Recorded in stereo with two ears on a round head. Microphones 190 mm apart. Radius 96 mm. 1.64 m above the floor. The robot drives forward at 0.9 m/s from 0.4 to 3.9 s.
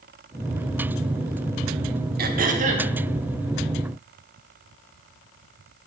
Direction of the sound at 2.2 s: 45° right (ahead or behind).